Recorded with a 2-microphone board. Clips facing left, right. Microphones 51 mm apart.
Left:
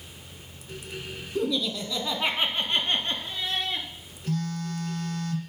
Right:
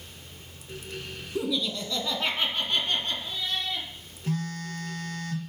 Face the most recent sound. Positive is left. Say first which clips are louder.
# left 1 dB
turn(degrees=-35)  # may be behind; listen again after turning